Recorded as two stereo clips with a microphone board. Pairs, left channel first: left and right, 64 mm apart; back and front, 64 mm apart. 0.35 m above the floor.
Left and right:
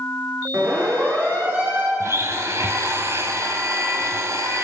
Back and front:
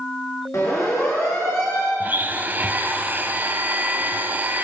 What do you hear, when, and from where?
0.5 s a siren: 140° right, 7 m; by 1.9 s 150° right, 6.5 m
2.0 s a blender: 55° right, 1.7 m